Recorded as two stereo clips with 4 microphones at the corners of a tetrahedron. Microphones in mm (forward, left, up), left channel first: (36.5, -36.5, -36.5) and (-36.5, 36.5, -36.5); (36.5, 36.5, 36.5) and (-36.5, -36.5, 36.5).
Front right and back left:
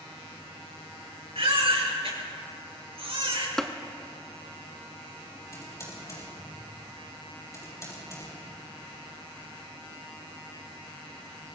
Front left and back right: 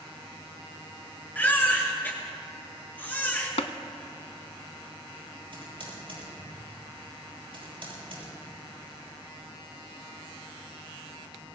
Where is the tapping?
40° left, 0.7 m.